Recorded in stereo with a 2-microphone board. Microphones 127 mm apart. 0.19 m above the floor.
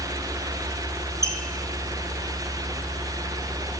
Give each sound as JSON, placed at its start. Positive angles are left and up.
{"t": 1.2, "sound": "a squeak", "side_deg": -25, "distance_m": 1.1}